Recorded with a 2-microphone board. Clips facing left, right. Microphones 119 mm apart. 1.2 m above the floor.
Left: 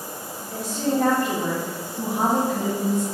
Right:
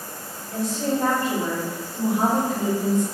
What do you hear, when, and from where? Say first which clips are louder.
0.5 s a woman speaking: even; 50° left (ahead or behind), 1.4 m; by 3.0 s 65° left (ahead or behind), 2.5 m